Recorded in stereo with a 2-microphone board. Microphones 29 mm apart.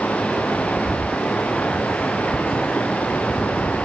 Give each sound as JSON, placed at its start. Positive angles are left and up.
{"t": 0.0, "sound": "running water", "side_deg": 60, "distance_m": 4.0}